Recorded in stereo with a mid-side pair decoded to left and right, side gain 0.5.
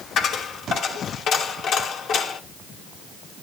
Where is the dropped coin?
70° left, 2.5 m.